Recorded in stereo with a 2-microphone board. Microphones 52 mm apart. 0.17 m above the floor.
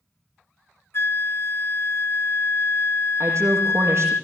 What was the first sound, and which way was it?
A flute, 50° left (ahead or behind).